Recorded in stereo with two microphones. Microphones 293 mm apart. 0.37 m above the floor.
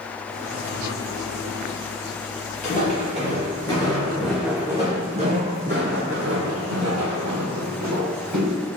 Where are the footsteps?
25° left (ahead or behind), 1.8 m; by 8.6 s 80° right, 2 m.